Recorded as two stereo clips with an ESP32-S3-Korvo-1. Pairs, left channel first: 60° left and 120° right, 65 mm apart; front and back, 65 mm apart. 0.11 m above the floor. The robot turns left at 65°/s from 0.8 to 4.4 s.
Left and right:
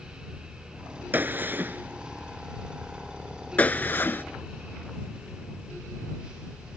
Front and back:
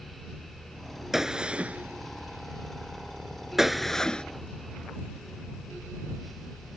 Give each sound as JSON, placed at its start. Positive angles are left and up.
{"t": 1.1, "sound": "a gunshot", "azimuth_deg": -100}